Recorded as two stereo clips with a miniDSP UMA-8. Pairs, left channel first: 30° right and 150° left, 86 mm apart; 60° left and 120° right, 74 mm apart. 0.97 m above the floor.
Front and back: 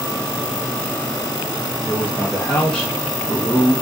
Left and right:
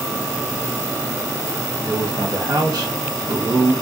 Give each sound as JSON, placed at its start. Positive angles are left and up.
{"t": 1.8, "sound": "a man speaking", "azimuth_deg": -115, "distance_m": 1.2}